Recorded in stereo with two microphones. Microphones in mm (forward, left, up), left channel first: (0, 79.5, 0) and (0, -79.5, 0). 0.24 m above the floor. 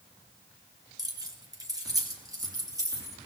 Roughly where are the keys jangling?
Right.